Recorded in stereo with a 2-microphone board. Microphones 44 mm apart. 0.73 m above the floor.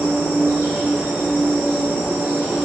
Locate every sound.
0.0 s an insect: 75° right (ahead or behind), 1.1 m